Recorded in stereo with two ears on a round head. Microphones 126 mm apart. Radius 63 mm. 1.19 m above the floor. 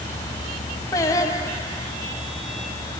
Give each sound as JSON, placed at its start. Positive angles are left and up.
{"t": 0.9, "sound": "singing", "side_deg": 25, "distance_m": 3.0}